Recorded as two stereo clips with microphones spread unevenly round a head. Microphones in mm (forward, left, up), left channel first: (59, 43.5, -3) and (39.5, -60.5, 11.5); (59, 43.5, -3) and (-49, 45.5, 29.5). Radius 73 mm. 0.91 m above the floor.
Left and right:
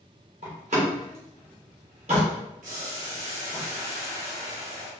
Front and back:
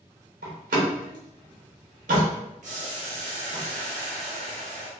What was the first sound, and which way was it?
A door slam, 150° right.